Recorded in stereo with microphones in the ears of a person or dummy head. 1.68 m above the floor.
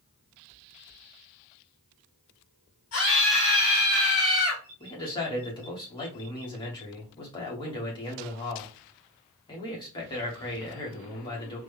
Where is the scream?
45° left (ahead or behind), 1.6 m.